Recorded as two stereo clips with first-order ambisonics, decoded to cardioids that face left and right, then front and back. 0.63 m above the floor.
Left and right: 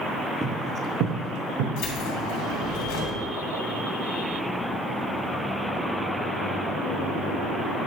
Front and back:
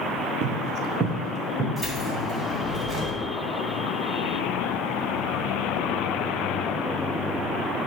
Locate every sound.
0.4 s footsteps: 165° right, 0.8 m; by 1.7 s 105° right, 2 m
1.8 s keys jangling: 85° left, 3 m